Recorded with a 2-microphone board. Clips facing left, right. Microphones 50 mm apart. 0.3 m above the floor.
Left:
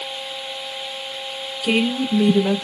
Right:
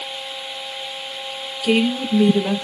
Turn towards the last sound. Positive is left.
turn(degrees=-5)  # may be behind; listen again after turning